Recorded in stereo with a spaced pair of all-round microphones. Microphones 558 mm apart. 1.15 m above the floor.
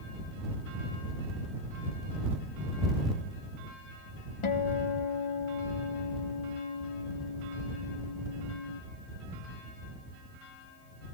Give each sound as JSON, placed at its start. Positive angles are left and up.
{"t": 4.4, "sound": "a guitar", "side_deg": 70}